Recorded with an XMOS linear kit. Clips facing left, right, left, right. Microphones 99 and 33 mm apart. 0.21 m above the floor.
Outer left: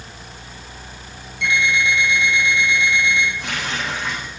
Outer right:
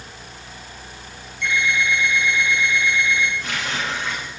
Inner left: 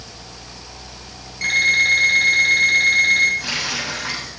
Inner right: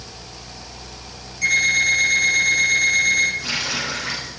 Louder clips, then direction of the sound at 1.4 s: Outer left 2 dB, inner left 1 dB; 80° left.